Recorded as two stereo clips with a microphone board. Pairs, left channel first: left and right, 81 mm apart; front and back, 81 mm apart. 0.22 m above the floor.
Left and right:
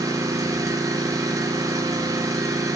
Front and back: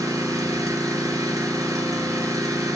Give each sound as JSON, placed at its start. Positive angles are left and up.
{"t": 0.0, "sound": "an engine running", "azimuth_deg": -140, "distance_m": 2.5}